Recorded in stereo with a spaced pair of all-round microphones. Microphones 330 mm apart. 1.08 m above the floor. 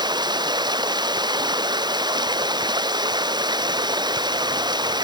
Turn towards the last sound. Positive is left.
turn(degrees=-15)  # may be behind; listen again after turning